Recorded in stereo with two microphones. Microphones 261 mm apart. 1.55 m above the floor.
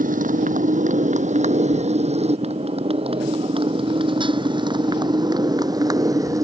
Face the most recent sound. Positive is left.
turn(degrees=-10)  # may be behind; listen again after turning